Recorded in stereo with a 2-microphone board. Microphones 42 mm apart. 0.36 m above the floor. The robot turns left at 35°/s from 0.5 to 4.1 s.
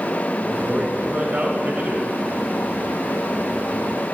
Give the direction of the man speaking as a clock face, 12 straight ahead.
1 o'clock.